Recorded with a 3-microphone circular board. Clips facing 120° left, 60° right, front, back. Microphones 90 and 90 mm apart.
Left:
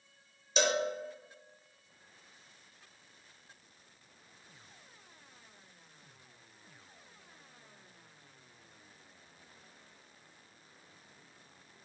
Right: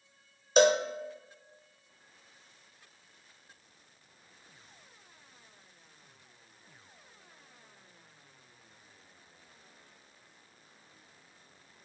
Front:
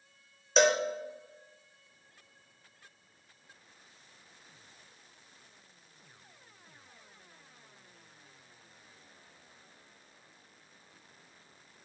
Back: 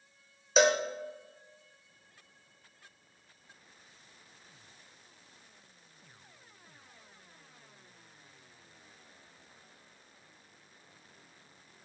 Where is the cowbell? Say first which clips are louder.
Right 7 dB, even; 95° right, 0.5 m.